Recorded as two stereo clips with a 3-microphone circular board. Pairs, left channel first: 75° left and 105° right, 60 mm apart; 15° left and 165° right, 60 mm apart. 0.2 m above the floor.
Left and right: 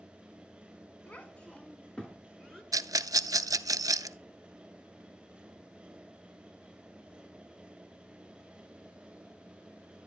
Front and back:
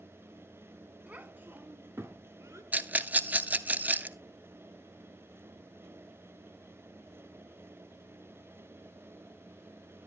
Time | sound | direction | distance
1.1 | a child speaking | 135° left | 1.1 m
2.7 | a rattle | 105° right | 0.5 m